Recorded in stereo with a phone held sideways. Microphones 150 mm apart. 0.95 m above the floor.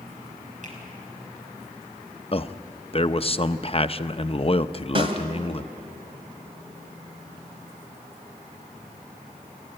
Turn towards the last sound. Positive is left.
turn(degrees=-35)  # may be behind; listen again after turning